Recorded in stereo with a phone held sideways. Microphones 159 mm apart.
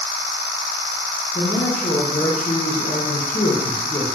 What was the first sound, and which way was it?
A man speaking, 45° left (ahead or behind).